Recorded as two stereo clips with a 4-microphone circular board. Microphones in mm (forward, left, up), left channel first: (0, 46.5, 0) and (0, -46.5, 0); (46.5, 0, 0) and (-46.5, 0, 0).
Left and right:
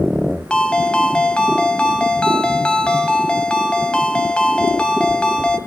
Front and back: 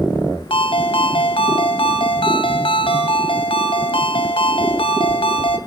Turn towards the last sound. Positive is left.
turn(degrees=10)